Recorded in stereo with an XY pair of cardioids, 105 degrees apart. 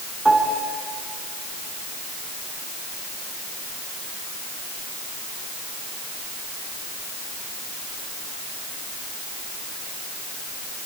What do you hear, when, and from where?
0.2 s a piano: 10° right, 4.5 m